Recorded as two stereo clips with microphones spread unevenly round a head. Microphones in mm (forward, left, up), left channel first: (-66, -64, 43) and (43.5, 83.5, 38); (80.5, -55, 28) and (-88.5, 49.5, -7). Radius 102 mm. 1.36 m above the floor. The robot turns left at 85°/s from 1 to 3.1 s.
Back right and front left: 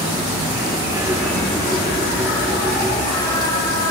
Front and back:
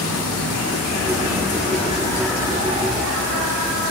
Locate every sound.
0.0 s an insect: 20° right, 0.9 m; by 3.9 s 165° left, 0.9 m